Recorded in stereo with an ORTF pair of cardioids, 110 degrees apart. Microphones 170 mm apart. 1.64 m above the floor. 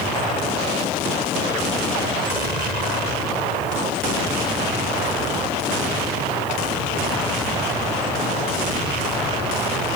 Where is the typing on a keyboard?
No typing on a keyboard in this recording.